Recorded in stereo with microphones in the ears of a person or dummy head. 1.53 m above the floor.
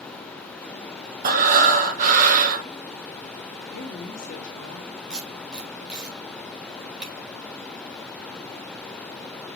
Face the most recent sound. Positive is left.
turn(degrees=-5)  # may be behind; listen again after turning